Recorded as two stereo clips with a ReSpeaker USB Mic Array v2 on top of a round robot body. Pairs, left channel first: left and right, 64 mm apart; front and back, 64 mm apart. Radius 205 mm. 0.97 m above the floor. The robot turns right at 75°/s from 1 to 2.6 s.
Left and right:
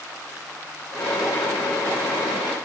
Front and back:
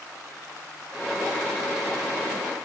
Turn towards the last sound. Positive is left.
No sound to turn to.